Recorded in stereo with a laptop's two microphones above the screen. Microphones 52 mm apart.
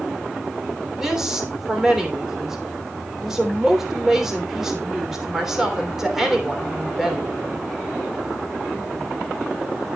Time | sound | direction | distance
1.0 | a woman speaking | 10° right (ahead or behind) | 3 m